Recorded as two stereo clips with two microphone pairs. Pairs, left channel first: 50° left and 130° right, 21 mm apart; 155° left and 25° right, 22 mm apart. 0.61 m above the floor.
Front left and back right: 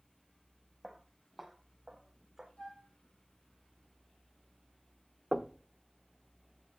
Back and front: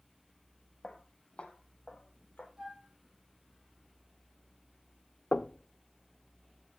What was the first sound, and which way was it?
Footsteps, 130° left.